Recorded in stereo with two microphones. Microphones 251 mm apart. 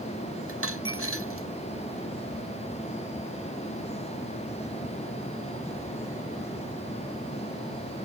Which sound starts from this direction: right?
A dropped coin, at 0.5 s.